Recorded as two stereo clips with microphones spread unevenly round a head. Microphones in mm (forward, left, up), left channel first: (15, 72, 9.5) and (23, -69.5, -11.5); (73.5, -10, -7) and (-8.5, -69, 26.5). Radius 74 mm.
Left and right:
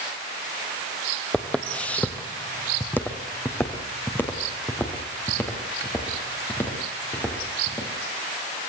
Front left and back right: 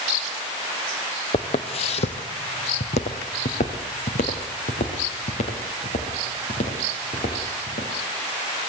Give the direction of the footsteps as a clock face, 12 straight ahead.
11 o'clock.